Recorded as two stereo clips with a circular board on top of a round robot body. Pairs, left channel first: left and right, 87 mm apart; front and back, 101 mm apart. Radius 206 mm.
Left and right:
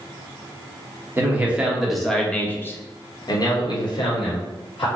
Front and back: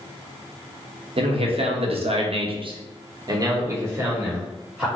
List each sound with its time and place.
1.2 s a man speaking: 160° right, 1.2 m; by 4.8 s 100° left, 1.6 m